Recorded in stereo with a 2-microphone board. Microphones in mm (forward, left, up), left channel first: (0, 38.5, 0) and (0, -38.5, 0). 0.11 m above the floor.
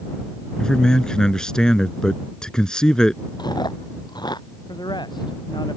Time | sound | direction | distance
0.6 | a man speaking | 10° left (ahead or behind) | ?
3.4 | chewing | 65° left (ahead or behind) | ?
4.7 | a man speaking | 75° left (ahead or behind) | ?